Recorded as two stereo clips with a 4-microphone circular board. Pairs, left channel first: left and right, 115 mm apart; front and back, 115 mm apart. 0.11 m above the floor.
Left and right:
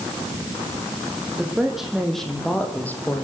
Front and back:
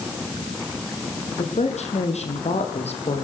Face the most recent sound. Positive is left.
turn(degrees=20)